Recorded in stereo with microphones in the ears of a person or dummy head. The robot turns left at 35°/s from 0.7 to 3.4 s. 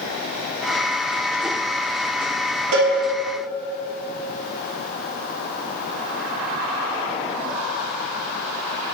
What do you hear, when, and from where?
2.7 s a cowbell: 70° right (ahead or behind), 1.0 m; by 2.9 s 65° right (ahead or behind), 1.0 m